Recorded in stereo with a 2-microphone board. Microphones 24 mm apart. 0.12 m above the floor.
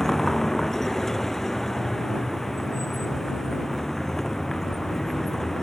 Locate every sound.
0.0 s a vehicle: 15° left (ahead or behind)